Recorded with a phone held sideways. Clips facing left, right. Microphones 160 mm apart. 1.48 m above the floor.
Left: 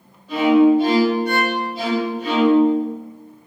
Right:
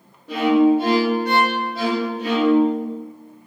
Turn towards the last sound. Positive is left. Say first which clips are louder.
# left 2 dB
turn(degrees=-75)  # may be behind; listen again after turning